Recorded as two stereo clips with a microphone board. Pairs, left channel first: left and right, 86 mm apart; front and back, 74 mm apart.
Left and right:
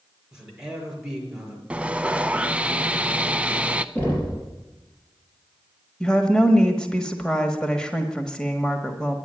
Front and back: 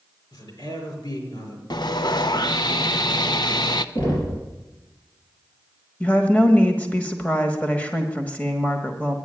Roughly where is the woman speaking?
Ahead.